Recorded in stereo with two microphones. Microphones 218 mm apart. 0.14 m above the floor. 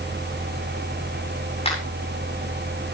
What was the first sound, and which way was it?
A finger snap, 30° left (ahead or behind).